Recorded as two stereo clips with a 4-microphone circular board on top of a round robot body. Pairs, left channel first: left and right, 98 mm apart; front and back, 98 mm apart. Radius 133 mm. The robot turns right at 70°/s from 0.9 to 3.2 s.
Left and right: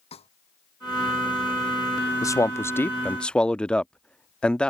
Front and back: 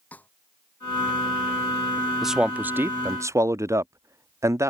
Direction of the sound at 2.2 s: 95° left.